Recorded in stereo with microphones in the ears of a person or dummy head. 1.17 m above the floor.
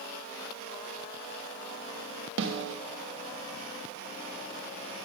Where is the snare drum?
65° right (ahead or behind), 1.8 m.